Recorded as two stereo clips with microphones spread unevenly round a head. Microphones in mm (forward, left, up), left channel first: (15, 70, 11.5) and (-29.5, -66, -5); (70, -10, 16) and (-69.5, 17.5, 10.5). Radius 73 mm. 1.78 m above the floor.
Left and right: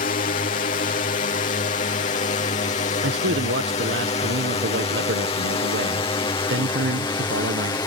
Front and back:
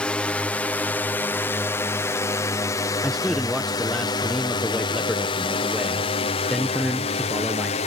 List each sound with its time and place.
0.0 s a drone: 70° left; by 7.9 s 10° left
3.0 s a man speaking: 95° right